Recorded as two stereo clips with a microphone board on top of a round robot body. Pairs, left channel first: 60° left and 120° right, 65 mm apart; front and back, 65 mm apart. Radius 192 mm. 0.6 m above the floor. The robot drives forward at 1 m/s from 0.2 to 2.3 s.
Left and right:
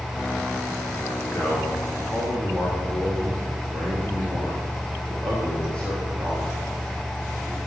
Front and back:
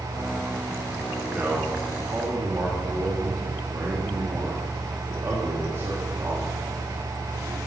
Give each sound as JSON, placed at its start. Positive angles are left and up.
{"t": 1.3, "sound": "a man speaking", "azimuth_deg": 115, "distance_m": 2.5}